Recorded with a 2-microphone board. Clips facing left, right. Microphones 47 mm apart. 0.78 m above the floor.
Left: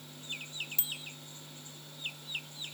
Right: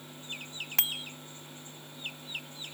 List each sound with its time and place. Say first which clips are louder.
0.8 s a bicycle bell: right 7 dB; 75° right (ahead or behind)